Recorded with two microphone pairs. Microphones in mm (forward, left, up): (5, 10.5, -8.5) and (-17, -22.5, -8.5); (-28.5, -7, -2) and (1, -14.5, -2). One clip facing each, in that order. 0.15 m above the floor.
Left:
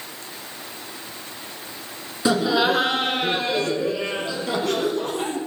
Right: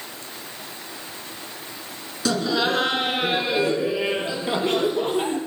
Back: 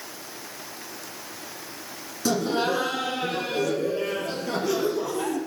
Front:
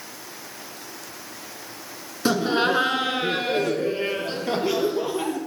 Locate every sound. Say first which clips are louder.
2.2 s laughter: left 3 dB, front 3 dB; straight ahead, 1.6 m; by 5.4 s 65° right, 4 m